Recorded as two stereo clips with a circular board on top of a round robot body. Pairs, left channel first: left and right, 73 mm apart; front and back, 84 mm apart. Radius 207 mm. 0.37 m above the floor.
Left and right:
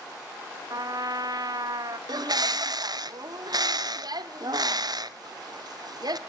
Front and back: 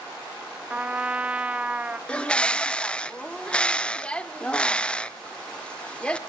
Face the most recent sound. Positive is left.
turn(degrees=-75)